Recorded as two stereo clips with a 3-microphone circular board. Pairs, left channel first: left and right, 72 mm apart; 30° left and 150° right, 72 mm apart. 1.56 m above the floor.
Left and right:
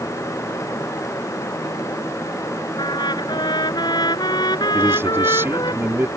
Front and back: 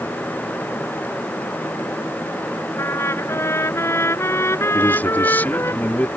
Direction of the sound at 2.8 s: 80° left.